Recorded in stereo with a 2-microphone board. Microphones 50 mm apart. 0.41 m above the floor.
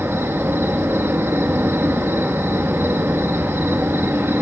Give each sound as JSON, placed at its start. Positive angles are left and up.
{"t": 0.0, "sound": "an insect", "side_deg": -50, "distance_m": 0.7}